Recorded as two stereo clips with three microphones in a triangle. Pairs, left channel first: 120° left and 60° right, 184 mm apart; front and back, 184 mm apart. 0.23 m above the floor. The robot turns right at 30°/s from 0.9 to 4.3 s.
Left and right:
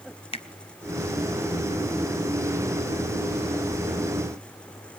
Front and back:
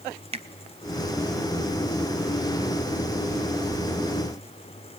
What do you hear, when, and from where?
0.3 s a finger snap: 150° left, 1.0 m